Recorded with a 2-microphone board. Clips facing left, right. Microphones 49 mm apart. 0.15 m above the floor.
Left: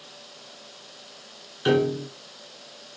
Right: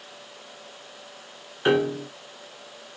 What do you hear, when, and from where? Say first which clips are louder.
1.6 s a piano: even; 25° right (ahead or behind), 0.6 m